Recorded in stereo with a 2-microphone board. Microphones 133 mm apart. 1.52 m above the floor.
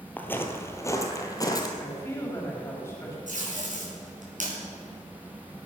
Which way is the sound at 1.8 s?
20° left (ahead or behind).